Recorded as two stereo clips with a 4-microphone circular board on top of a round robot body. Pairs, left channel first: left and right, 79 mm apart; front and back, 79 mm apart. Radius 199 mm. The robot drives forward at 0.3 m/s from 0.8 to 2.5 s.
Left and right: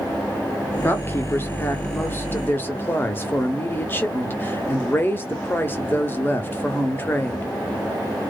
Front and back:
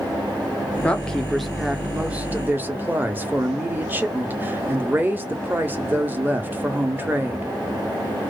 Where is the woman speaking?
60° left, 0.9 m; by 7.5 s 135° left, 0.9 m.